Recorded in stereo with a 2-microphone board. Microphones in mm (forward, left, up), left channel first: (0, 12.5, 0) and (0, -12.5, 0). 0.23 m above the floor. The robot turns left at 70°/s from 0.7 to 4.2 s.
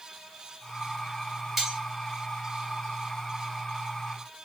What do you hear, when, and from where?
1.6 s cutlery clinking: 10° right (ahead or behind), 2.5 m; by 1.8 s 20° right (ahead or behind), 2.5 m